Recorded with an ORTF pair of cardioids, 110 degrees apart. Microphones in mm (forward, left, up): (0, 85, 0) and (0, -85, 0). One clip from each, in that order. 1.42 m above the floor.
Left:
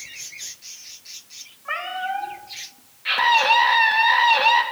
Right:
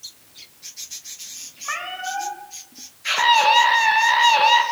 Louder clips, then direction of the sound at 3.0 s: Right 1 dB; 10° right.